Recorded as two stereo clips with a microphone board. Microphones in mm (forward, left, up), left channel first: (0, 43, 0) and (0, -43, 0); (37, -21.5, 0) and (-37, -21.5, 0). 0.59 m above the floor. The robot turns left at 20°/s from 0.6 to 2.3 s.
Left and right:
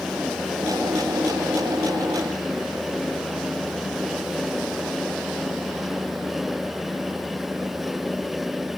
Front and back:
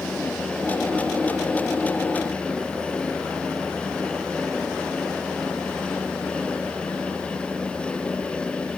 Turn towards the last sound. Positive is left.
No sound to turn to.